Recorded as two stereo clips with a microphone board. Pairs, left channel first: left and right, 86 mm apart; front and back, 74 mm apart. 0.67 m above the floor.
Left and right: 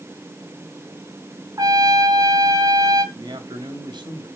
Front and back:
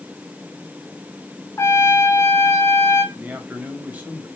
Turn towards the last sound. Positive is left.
turn(degrees=-110)